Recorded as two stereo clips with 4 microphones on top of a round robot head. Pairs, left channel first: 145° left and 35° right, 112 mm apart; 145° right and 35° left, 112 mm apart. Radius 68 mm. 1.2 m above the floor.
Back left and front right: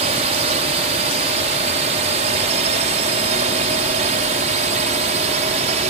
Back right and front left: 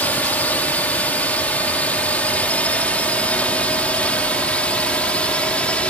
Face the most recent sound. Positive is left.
turn(degrees=-60)